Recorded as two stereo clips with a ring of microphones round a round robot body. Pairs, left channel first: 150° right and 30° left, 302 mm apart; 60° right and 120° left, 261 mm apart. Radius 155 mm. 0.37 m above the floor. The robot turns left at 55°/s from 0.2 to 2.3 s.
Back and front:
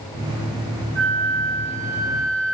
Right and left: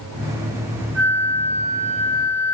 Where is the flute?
95° left, 5.5 m; by 2.5 s 20° left, 5.5 m.